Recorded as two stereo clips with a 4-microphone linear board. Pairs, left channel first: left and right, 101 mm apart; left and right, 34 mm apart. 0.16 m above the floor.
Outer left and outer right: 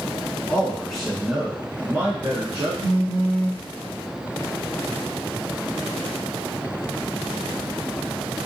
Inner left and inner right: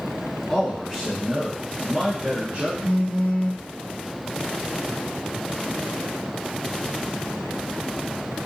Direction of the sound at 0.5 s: 10° left (ahead or behind).